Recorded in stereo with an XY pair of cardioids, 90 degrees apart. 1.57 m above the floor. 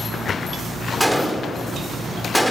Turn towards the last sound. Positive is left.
turn(degrees=5)